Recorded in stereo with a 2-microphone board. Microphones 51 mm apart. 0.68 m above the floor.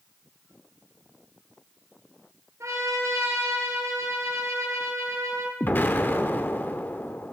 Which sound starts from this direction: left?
An explosion, at 5.6 s.